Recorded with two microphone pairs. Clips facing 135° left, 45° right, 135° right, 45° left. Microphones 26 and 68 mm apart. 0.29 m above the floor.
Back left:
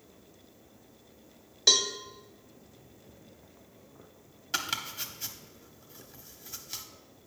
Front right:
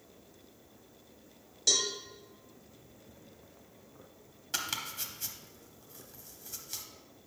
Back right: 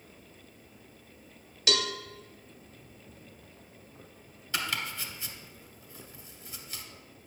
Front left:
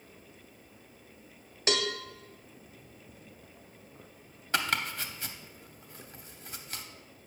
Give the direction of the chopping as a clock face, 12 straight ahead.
10 o'clock.